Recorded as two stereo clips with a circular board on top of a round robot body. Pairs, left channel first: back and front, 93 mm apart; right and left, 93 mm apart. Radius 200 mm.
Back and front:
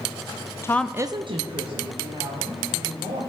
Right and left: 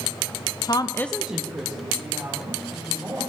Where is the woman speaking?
125° right, 0.7 m; by 3.2 s 25° left, 3.5 m.